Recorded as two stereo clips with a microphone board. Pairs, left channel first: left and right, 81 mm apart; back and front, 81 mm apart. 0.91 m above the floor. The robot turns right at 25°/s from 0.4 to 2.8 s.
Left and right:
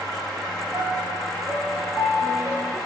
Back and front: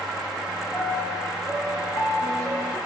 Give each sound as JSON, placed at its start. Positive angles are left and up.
{"t": 0.7, "sound": "a piano", "azimuth_deg": 125, "distance_m": 1.5}